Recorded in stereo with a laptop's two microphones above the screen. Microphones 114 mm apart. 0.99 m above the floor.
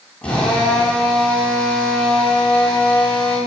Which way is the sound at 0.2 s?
10° left (ahead or behind).